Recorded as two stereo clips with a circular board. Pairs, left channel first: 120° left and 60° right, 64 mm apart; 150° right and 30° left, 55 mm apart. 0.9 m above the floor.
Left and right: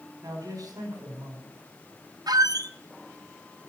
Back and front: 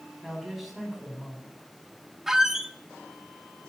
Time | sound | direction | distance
0.2 | a man speaking | 60° right | 4 m
2.3 | a squeak | 55° right | 0.8 m